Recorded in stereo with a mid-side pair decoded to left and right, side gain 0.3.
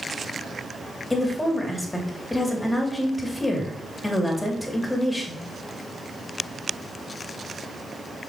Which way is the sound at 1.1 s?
25° left.